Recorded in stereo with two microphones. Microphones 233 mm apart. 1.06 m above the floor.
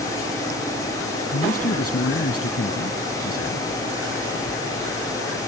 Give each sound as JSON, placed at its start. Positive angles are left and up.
{"t": 1.3, "sound": "a man speaking", "side_deg": 75}